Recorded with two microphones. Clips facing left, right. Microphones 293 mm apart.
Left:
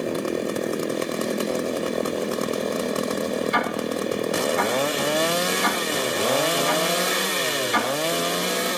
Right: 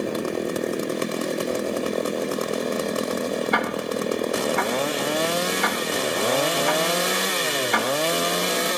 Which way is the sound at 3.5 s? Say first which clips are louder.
Even; 65° right (ahead or behind).